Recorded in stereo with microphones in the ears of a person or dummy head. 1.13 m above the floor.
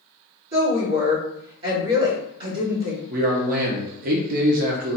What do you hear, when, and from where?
0.5 s a woman speaking: 60° right (ahead or behind), 1.9 m
3.1 s a man speaking: 45° right (ahead or behind), 0.7 m